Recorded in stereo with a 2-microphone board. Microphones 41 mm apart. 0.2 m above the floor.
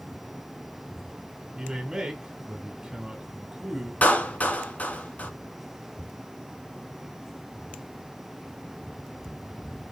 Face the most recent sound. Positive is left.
turn(degrees=45)  # may be behind; listen again after turning